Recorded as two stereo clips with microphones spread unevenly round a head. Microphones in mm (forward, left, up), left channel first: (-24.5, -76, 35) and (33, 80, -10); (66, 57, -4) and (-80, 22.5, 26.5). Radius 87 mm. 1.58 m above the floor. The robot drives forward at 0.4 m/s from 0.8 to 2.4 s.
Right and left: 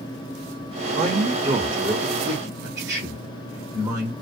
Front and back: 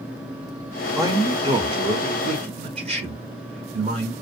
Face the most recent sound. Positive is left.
turn(degrees=145)